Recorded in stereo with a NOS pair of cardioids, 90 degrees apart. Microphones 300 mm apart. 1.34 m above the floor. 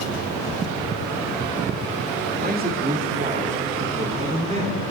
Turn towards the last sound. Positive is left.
turn(degrees=-20)